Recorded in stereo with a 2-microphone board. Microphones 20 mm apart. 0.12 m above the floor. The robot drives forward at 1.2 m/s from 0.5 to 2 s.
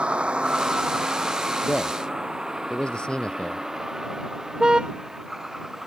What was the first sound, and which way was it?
A vehicle, 65° right (ahead or behind).